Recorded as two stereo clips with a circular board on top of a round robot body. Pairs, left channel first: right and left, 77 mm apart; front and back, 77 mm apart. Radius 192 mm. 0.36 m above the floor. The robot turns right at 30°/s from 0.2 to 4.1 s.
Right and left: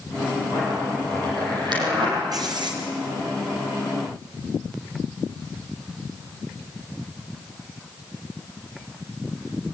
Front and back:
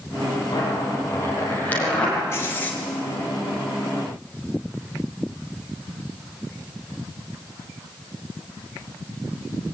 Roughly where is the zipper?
Ahead left.